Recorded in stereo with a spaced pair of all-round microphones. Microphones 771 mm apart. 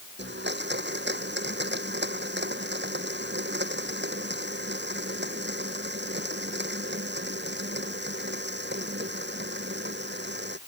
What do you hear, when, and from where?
0.2 s a blender: 15° right (ahead or behind)